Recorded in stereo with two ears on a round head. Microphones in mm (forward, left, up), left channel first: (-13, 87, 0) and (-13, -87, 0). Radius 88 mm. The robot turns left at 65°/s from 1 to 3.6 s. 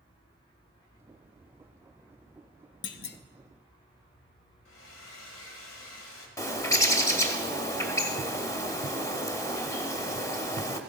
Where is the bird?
15° left (ahead or behind), 0.9 m.